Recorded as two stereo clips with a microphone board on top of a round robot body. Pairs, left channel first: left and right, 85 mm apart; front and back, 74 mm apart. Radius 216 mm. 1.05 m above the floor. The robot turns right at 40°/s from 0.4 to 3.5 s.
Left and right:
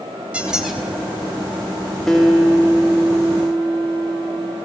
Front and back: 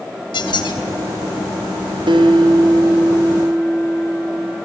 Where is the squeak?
10° right, 5 m; by 0.8 s 5° left, 5 m.